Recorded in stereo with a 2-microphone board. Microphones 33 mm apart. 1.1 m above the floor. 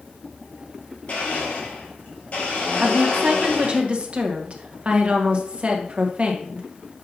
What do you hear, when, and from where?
1.1 s a blender: 50° left (ahead or behind), 3.5 m
2.8 s a woman speaking: 40° right (ahead or behind), 1.3 m